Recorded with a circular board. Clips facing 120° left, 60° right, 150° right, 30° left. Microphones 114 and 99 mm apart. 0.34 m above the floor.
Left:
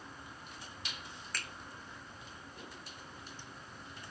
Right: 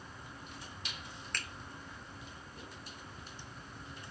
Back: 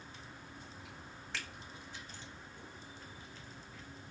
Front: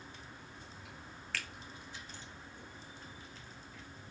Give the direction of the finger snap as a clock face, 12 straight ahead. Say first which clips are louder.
Even, front 1 dB; 5 o'clock.